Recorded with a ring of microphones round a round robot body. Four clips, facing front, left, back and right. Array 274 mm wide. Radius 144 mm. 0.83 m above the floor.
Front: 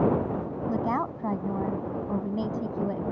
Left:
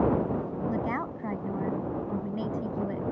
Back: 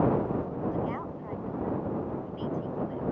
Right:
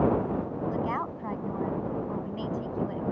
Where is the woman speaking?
20° left.